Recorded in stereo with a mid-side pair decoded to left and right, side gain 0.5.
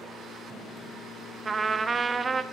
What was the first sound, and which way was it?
A trumpet, 35° right.